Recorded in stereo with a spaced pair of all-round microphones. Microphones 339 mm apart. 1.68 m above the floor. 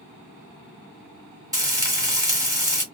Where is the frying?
10° right (ahead or behind), 1.8 m.